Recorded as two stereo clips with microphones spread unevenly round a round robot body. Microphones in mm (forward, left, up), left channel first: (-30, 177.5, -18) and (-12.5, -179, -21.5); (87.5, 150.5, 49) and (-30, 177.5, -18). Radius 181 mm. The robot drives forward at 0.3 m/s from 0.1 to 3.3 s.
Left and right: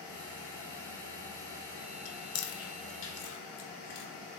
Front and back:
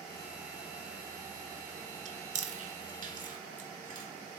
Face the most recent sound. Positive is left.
turn(degrees=145)